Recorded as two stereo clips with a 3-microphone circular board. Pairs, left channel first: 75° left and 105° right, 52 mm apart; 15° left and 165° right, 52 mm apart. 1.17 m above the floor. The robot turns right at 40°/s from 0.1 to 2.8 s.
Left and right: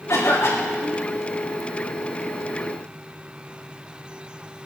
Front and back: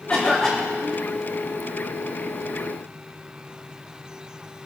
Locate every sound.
0.1 s a cough: 80° left, 4.5 m; by 1.1 s 120° left, 4.5 m